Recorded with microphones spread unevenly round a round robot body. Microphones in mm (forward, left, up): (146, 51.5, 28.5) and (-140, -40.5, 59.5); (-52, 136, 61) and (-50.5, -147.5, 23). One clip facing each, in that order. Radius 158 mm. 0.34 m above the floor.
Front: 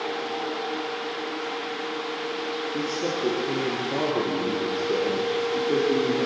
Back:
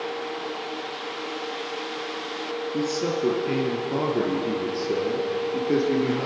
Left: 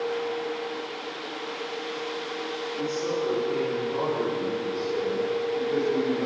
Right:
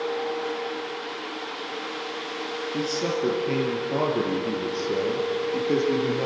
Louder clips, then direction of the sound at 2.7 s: Back 4 dB, right 1 dB; 90° right.